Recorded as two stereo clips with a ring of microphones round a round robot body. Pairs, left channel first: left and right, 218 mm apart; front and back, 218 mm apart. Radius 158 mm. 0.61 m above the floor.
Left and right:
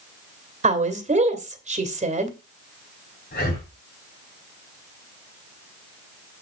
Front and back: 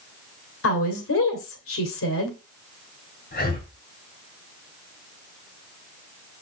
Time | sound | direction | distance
0.6 | a woman speaking | 30° right | 2.5 m
3.3 | breathing | 45° left | 4 m